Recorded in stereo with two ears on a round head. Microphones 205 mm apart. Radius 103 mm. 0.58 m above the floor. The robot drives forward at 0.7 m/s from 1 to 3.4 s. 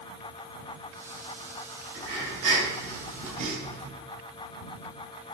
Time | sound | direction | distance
1.9 | breathing | 60° right (ahead or behind) | 3 m